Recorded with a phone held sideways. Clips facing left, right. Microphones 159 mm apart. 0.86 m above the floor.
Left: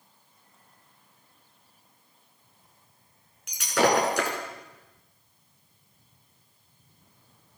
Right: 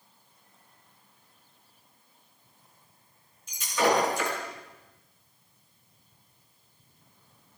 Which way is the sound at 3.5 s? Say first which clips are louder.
Left 2 dB; 80° left.